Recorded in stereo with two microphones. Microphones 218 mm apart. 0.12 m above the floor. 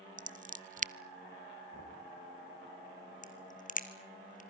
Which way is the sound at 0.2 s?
35° right (ahead or behind).